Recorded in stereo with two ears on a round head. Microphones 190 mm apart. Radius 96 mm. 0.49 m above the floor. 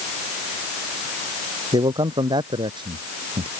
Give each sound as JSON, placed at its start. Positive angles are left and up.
{"t": 1.7, "sound": "a man speaking", "side_deg": -20}